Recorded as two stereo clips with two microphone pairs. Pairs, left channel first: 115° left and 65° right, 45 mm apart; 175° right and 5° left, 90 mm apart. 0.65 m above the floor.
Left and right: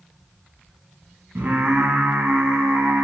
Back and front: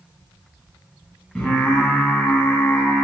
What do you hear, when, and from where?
1.4 s singing: 95° right, 1.2 m